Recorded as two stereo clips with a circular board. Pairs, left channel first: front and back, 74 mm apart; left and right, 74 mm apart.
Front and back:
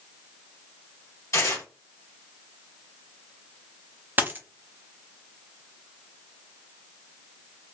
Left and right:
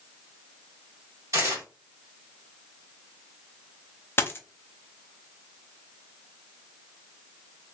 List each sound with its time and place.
1.3 s tearing paper: 45° right, 1.0 m
4.2 s a dropped coin: 130° left, 0.5 m